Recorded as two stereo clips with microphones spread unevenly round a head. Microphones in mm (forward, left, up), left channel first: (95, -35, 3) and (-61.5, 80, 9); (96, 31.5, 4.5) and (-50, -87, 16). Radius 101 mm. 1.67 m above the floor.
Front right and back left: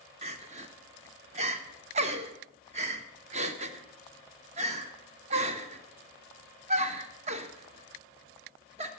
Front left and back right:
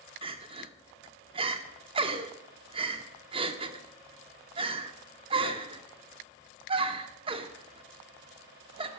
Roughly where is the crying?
Behind.